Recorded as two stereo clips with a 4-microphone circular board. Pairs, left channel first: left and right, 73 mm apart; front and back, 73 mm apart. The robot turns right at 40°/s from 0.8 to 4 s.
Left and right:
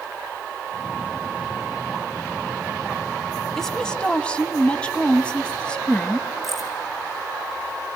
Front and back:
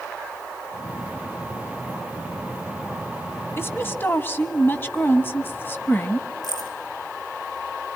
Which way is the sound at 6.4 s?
Straight ahead.